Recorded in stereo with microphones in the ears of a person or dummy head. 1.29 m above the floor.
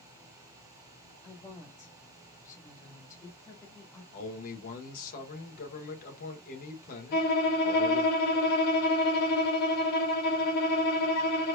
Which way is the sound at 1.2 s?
15° left (ahead or behind).